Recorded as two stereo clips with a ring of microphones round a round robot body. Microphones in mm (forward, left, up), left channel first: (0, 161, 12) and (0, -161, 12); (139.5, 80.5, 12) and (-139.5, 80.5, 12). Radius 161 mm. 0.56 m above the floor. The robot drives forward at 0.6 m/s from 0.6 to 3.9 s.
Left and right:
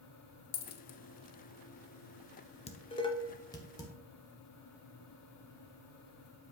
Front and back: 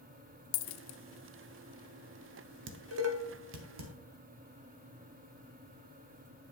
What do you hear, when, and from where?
0.5 s a dropped coin: 25° left, 0.7 m; by 1.0 s 35° left, 0.5 m
2.7 s dishes clattering: 155° left, 0.7 m; by 3.9 s 170° left, 1.4 m